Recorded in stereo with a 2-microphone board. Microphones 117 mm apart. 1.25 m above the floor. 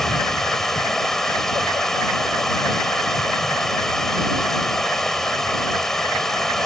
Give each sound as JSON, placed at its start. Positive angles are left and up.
{"t": 0.0, "sound": "running water", "side_deg": 5}